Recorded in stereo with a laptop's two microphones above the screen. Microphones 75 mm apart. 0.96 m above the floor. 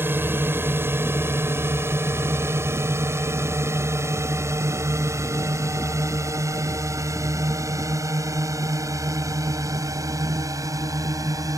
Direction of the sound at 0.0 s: 30° right (ahead or behind).